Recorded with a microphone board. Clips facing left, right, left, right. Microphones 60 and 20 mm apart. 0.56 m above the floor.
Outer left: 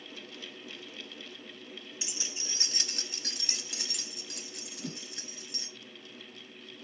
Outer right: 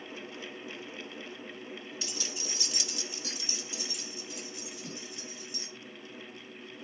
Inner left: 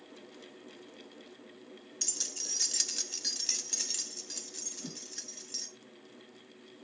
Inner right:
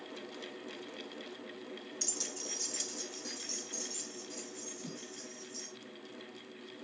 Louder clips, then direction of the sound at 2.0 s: Outer right 3 dB, inner left 4 dB; 15° left (ahead or behind).